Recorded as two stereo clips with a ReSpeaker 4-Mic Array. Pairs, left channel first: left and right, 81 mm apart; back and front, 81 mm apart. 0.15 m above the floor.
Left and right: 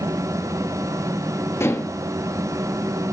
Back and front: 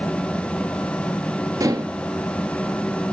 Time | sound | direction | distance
1.6 | dishes clattering | 40° left | 1.7 m